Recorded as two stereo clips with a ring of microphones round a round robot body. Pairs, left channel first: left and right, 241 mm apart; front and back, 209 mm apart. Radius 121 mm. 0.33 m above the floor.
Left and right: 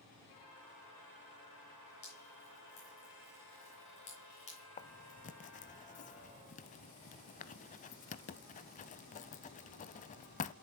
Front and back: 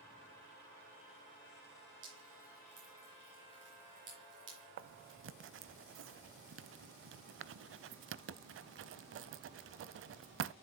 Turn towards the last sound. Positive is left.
turn(degrees=150)